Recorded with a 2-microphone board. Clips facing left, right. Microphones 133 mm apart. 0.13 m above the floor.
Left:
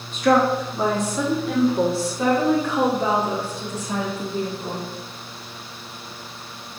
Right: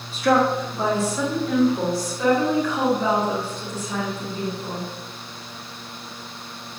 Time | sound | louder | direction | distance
0.1 | a woman speaking | left 1 dB | 5° left (ahead or behind) | 4 m